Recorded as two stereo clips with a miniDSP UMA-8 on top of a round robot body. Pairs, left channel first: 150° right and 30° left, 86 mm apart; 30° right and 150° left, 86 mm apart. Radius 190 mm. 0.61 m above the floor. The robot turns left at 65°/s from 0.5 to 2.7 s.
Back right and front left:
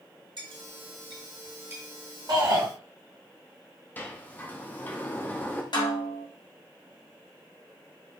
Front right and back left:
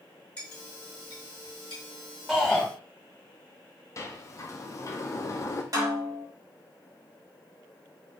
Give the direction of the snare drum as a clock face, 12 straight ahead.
6 o'clock.